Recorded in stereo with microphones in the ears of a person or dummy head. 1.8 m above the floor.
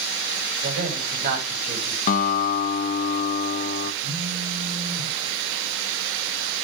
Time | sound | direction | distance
0.6 | a man speaking | 50° right (ahead or behind) | 8 m
2.1 | a guitar | 45° left (ahead or behind) | 1.1 m
4.0 | a phone buzzing | 60° right (ahead or behind) | 5 m